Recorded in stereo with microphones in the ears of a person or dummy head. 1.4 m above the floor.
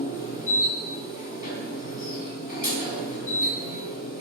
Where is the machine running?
50° left (ahead or behind), 4.5 m.